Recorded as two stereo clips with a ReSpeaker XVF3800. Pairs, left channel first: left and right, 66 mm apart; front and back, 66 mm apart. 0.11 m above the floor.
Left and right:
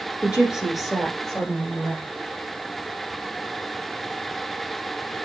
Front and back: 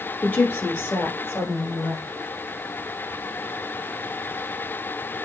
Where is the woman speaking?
30° right, 1.3 m; by 2.0 s 25° left, 1.7 m.